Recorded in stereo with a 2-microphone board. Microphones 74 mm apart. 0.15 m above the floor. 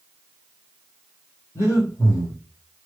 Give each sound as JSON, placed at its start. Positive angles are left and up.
{"t": 1.6, "sound": "breathing", "side_deg": 40, "distance_m": 1.5}